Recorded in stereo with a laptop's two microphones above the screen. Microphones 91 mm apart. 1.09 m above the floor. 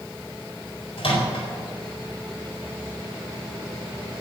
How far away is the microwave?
About 4 m.